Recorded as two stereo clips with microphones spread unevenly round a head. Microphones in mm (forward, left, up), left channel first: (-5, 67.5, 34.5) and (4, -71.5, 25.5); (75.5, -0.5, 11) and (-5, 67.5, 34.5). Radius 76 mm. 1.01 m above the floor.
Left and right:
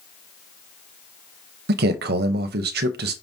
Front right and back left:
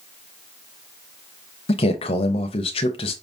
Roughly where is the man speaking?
Right.